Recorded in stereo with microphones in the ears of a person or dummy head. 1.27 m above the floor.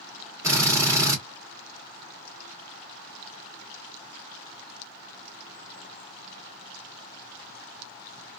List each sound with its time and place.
0.4 s a drill: 10° right (ahead or behind), 2 m